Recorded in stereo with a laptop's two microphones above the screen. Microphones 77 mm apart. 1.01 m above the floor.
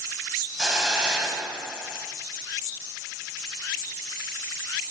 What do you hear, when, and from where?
0.6 s a hiss: 10° right (ahead or behind), 1.8 m